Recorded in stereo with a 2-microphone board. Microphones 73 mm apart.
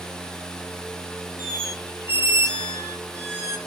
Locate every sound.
1.4 s a squeak: 35° right (ahead or behind), 1.4 m